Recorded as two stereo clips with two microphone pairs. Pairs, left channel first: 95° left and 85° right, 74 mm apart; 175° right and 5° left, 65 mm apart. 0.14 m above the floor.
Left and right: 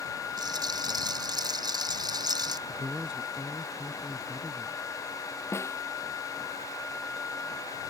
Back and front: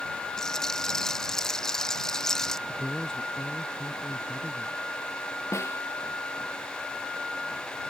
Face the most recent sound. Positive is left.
turn(degrees=145)